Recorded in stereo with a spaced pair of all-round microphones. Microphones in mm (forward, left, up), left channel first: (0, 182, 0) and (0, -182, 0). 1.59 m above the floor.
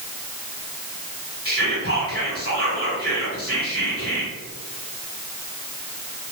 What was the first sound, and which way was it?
Whispering, 40° left (ahead or behind).